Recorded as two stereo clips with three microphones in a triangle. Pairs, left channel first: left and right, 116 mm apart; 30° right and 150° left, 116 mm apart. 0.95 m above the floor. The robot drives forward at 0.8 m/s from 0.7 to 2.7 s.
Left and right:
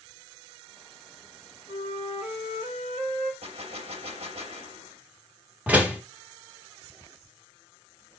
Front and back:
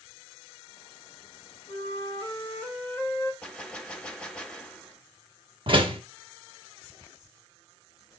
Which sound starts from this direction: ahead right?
A flute, at 1.7 s.